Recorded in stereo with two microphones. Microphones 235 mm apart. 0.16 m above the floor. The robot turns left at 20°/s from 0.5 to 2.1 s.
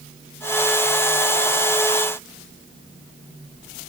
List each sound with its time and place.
Only background noise.